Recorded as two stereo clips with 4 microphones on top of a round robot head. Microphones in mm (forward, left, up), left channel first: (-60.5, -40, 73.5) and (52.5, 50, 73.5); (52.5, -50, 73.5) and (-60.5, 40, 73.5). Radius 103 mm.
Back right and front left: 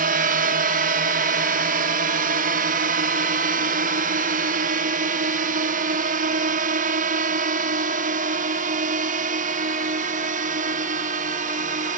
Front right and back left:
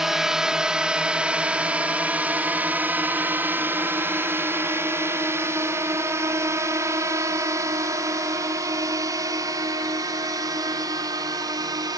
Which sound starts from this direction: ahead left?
A drone, at 0.0 s.